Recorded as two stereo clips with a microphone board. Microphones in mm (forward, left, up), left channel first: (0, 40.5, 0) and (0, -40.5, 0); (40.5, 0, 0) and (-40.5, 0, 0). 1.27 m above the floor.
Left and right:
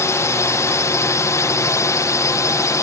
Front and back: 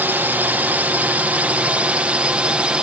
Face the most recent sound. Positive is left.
turn(degrees=105)